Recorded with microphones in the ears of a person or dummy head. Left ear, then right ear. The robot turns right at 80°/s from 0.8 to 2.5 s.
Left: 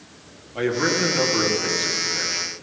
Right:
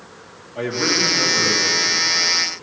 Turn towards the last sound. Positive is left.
turn(degrees=145)